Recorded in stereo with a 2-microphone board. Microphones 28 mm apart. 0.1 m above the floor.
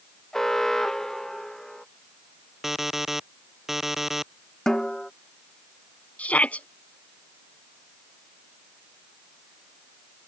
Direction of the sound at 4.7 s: 20° left (ahead or behind).